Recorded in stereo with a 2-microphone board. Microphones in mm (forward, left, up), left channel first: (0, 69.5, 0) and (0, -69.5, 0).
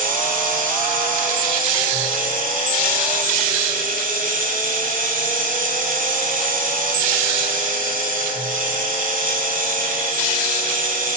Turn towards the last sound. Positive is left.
turn(degrees=-80)